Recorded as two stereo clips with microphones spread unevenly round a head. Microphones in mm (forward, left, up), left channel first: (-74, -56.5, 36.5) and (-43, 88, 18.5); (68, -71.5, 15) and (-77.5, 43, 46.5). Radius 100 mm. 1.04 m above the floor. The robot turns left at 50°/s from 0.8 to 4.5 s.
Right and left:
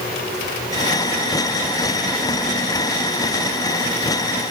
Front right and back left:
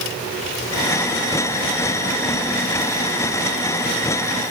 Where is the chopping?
No chopping in this recording.